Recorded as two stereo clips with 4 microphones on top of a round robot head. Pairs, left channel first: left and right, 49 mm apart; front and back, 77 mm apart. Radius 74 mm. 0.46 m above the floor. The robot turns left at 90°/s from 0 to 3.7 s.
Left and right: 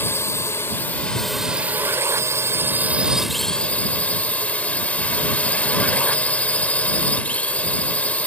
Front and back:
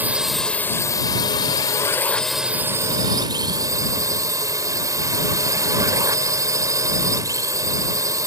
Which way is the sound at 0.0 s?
120° left.